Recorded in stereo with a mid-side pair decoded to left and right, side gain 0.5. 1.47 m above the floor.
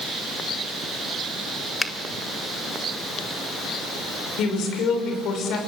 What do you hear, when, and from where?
1.8 s a finger snap: 20° left, 1.7 m
4.4 s a woman speaking: 65° left, 6 m